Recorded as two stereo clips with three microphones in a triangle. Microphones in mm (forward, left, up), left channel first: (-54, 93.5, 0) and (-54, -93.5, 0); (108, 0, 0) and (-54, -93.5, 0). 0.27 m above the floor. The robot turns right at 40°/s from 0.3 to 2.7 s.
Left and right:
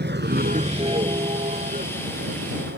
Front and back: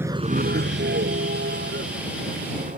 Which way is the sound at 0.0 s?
70° right.